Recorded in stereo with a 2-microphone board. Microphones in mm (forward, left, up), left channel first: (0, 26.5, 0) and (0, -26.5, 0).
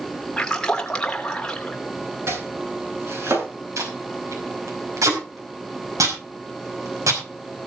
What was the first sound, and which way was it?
A splash, 15° left (ahead or behind).